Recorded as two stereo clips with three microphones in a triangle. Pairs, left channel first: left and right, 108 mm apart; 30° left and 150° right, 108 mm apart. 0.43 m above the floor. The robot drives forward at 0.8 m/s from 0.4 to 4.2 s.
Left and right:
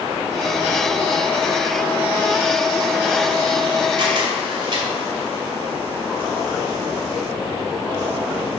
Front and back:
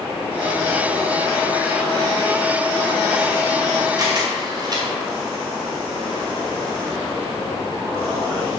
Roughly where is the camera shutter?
Right.